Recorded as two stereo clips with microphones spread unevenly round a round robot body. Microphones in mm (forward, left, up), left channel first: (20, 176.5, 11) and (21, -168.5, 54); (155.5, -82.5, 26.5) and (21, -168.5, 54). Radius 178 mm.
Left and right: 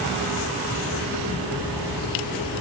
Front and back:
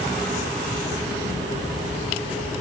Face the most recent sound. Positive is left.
No sound to turn to.